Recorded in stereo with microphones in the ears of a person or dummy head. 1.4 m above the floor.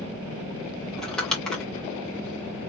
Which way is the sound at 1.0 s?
Centre (ahead or behind).